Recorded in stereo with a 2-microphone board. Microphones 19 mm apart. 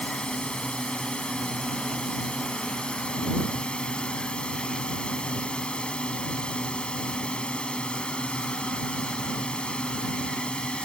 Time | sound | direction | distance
0.0 | a drone | 60° left (ahead or behind) | ?